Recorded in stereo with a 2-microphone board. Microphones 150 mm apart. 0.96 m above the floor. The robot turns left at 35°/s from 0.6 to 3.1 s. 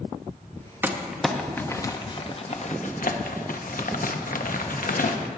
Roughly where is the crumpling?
Centre.